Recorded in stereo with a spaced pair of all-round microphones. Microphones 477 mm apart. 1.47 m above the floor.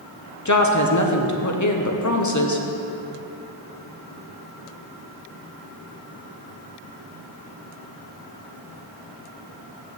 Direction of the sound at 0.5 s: 35° left (ahead or behind).